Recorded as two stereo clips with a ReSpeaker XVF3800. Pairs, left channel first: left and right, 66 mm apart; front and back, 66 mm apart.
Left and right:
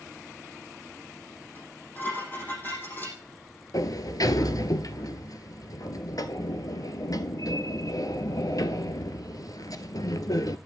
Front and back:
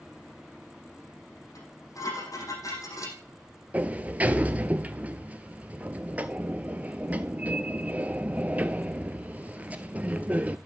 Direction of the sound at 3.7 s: 115° left.